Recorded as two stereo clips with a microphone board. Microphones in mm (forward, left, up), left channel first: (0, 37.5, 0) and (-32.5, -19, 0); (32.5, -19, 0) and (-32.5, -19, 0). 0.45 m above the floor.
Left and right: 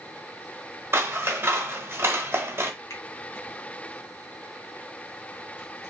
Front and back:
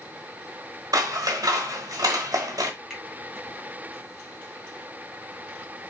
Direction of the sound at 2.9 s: 90° left.